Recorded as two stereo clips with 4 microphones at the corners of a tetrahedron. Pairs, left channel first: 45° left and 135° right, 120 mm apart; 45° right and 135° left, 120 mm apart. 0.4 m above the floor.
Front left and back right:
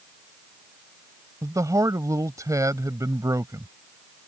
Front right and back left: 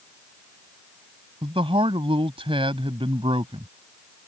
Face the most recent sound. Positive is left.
turn(degrees=165)